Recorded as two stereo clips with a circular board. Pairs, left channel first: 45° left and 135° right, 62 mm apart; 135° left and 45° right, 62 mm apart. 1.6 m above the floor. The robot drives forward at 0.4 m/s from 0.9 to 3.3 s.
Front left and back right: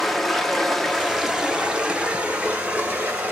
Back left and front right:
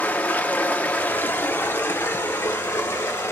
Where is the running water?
130° left, 0.7 m; by 3.3 s 170° left, 1.3 m.